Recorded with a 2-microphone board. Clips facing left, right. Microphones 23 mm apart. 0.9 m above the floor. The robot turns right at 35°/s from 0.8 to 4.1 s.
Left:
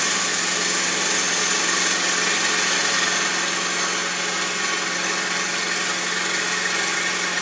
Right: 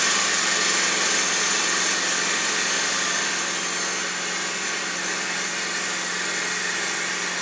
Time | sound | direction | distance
0.0 | an engine running | straight ahead | 2 m